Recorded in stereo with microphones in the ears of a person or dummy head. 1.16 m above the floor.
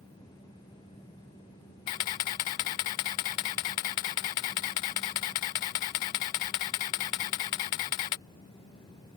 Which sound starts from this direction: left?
A camera shutter, at 1.9 s.